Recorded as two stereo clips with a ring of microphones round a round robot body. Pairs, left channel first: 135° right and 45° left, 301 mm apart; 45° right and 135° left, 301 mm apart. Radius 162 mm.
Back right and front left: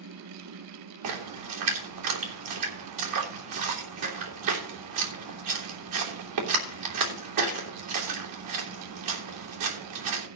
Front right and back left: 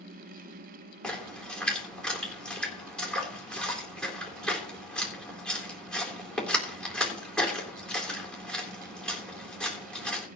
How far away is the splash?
About 3.5 m.